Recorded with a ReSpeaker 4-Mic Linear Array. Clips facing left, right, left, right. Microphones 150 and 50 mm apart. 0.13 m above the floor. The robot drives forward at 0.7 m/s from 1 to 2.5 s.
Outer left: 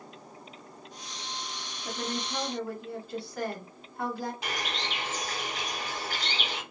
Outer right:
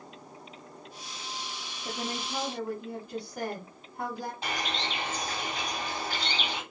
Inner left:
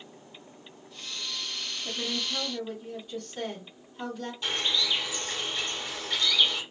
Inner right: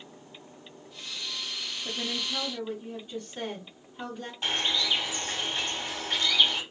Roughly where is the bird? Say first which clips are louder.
Outer right 2 dB, inner right 1 dB; right.